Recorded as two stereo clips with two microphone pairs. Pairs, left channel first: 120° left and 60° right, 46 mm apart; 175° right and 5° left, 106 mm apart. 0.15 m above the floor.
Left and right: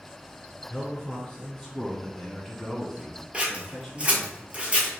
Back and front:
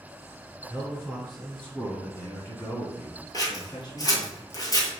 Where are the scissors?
125° right, 1.0 m.